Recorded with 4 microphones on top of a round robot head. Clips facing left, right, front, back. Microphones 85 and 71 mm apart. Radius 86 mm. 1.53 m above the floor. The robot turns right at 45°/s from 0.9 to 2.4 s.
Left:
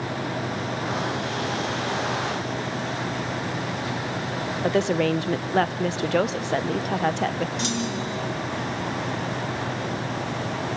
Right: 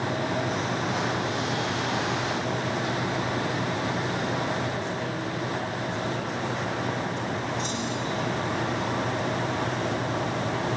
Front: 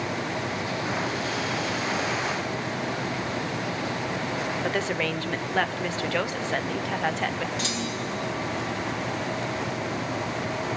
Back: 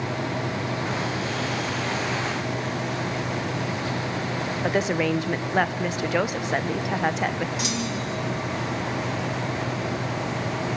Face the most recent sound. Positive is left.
turn(degrees=105)